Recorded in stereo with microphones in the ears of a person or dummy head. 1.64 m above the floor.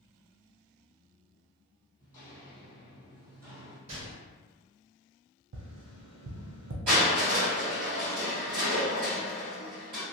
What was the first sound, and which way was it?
Footsteps, 20° left (ahead or behind).